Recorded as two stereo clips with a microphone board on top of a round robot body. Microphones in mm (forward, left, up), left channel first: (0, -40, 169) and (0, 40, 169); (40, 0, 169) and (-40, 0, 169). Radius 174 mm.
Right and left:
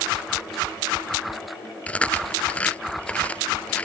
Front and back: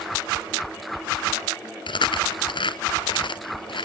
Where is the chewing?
15° right.